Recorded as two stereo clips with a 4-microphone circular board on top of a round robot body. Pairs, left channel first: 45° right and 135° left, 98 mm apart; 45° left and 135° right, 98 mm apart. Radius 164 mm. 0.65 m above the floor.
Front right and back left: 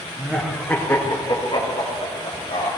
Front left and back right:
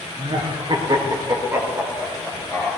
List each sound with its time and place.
0.2 s laughter: 145° right, 1.8 m; by 2.7 s 45° right, 3 m